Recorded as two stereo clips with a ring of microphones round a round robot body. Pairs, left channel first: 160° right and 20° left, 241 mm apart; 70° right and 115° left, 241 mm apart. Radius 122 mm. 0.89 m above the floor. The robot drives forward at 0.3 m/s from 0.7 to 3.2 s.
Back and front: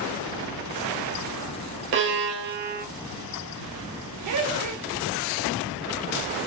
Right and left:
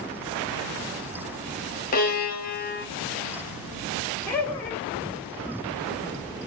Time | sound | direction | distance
1.9 | a violin | 15° right | 0.8 m
4.3 | laughter | 15° left | 0.8 m